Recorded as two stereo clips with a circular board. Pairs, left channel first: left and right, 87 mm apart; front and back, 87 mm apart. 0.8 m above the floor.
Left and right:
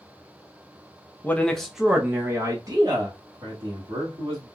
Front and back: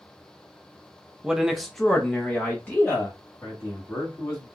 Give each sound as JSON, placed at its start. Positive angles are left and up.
{"t": 1.2, "sound": "a man speaking", "azimuth_deg": 115, "distance_m": 0.7}